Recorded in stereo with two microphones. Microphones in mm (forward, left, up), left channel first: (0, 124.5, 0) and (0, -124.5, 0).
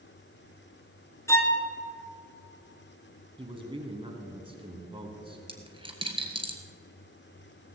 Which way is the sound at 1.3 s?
10° left (ahead or behind).